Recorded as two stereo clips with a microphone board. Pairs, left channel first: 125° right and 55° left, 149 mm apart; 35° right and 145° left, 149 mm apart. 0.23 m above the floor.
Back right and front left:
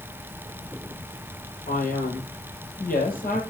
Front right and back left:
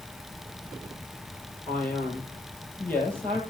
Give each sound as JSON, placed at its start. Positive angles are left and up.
{"t": 1.7, "sound": "a man speaking", "azimuth_deg": -115, "distance_m": 6.5}